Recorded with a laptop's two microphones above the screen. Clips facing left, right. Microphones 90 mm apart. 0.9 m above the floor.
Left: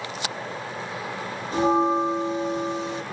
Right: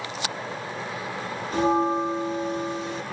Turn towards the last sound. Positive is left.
turn(degrees=25)  # may be behind; listen again after turning